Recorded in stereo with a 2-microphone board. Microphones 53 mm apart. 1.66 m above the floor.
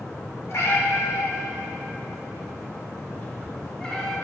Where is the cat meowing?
60° left (ahead or behind), 2 m; by 4.2 s 15° left (ahead or behind), 1.6 m.